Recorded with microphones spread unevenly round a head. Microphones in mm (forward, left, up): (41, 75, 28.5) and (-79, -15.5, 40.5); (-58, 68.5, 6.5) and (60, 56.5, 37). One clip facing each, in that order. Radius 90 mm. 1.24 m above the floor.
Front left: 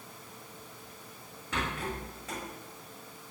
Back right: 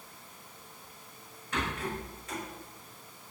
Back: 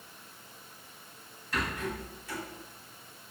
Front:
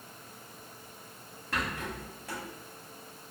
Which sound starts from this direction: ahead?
A rattle, at 1.5 s.